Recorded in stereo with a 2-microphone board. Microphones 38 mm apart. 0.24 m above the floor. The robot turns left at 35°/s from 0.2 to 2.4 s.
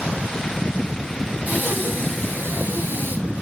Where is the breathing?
40° right, 6.5 m; by 3.2 s 70° right, 6.5 m.